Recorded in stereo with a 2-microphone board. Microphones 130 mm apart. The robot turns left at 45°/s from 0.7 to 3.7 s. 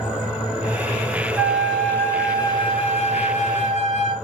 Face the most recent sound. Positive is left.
turn(degrees=85)